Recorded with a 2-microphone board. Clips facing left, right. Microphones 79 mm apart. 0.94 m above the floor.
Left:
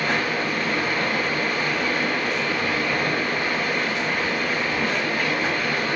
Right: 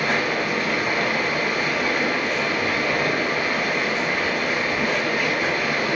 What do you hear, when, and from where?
0.0 s running water: 10° right (ahead or behind), 4.5 m